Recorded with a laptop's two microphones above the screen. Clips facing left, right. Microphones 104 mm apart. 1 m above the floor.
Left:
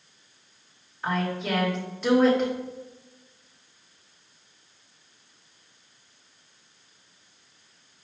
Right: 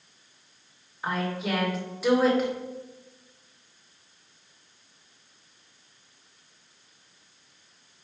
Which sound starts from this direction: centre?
A woman speaking, at 1.0 s.